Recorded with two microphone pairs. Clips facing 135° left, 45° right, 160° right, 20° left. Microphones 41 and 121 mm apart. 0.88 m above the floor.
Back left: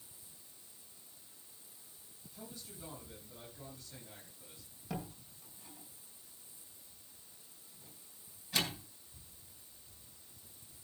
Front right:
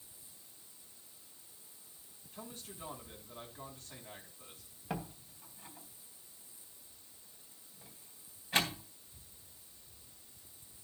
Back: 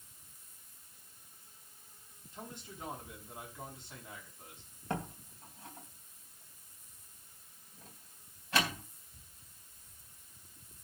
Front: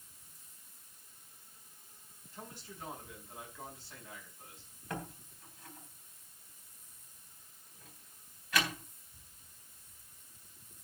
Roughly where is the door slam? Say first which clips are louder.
Front right 2 dB, back 4 dB; right.